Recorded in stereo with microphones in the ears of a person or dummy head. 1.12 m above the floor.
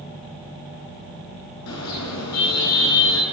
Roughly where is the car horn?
Left.